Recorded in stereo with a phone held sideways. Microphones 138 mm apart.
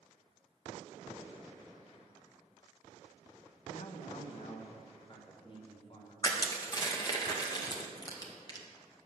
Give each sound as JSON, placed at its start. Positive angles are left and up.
{"t": 3.7, "sound": "a man speaking", "side_deg": 60, "distance_m": 1.1}
{"t": 6.2, "sound": "crushing", "side_deg": 30, "distance_m": 1.8}